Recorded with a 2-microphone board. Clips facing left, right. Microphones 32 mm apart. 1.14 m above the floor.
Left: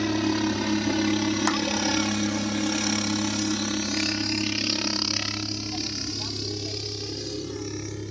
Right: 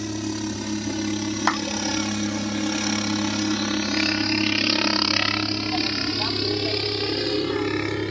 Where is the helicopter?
25° left (ahead or behind); by 8.1 s 60° right (ahead or behind).